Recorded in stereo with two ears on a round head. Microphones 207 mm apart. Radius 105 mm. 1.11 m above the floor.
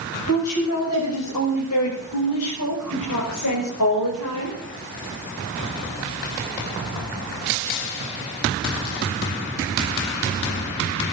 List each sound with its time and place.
0.3 s a woman speaking: 75° left (ahead or behind), 7.5 m; by 4.6 s 80° left, 5.5 m